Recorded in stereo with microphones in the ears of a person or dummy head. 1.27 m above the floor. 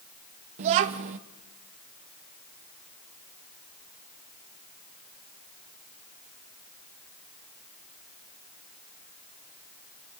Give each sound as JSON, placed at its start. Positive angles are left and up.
{"t": 0.6, "sound": "a child speaking", "side_deg": -45, "distance_m": 0.6}